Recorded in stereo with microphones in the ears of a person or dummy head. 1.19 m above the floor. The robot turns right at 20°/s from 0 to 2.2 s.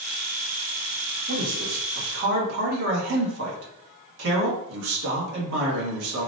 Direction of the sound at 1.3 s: 50° right (ahead or behind).